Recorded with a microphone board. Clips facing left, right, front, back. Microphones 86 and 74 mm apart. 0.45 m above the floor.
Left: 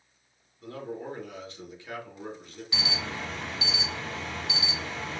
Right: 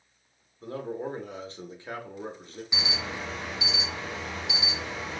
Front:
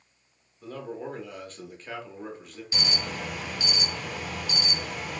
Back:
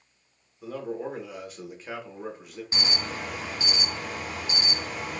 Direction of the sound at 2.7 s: 155° right.